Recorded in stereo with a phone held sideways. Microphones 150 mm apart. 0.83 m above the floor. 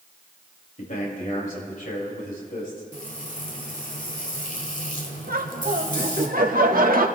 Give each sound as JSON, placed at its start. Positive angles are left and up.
{"t": 0.8, "sound": "a man speaking", "side_deg": 65, "distance_m": 4.5}
{"t": 2.9, "sound": "frying", "side_deg": 60, "distance_m": 1.5}
{"t": 5.3, "sound": "laughter", "side_deg": -70, "distance_m": 1.3}